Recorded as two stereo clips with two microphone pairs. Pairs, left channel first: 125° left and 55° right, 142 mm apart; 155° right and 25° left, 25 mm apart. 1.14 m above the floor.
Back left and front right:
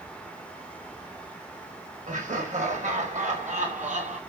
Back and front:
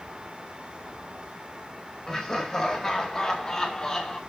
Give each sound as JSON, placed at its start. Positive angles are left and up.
{"t": 2.1, "sound": "laughter", "azimuth_deg": -80, "distance_m": 5.0}